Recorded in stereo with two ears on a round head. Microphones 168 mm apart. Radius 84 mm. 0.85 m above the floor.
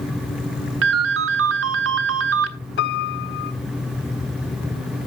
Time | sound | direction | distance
0.8 | a ringtone | 75° right (ahead or behind) | 0.9 m
2.8 | a piano | 60° left (ahead or behind) | 0.7 m